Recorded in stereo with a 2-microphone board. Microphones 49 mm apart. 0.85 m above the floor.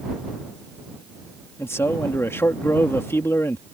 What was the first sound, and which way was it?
A man speaking, 60° left (ahead or behind).